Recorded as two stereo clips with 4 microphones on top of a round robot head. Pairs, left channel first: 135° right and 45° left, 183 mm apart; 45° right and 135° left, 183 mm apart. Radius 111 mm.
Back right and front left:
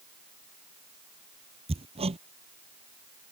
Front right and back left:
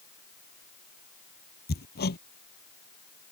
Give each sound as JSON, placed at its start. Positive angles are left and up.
{"t": 1.7, "sound": "hammering", "azimuth_deg": -10}